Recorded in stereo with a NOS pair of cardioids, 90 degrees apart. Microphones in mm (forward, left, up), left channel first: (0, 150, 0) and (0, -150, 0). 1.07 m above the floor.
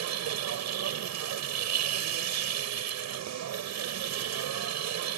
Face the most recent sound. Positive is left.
turn(degrees=-65)